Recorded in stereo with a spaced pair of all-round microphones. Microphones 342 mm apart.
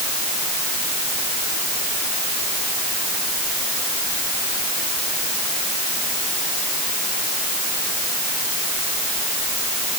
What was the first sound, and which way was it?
Only background noise.